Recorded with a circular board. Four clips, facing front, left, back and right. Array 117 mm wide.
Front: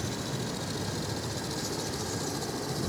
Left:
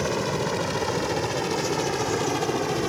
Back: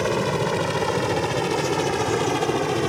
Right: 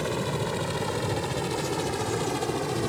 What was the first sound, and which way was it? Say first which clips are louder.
A helicopter: left 3 dB, back 13 dB; 165° left.